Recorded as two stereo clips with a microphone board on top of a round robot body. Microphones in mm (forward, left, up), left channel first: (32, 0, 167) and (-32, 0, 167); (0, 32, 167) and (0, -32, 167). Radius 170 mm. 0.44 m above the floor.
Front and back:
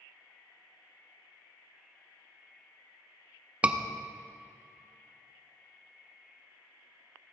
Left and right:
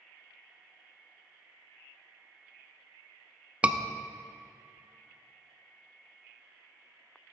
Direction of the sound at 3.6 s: 135° right.